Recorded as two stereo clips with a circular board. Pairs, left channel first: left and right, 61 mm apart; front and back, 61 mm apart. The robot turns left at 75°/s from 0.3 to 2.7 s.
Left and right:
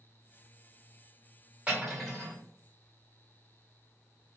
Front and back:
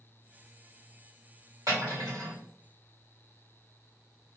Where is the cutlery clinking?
155° right, 1.8 m; by 2.4 s 150° left, 1.8 m.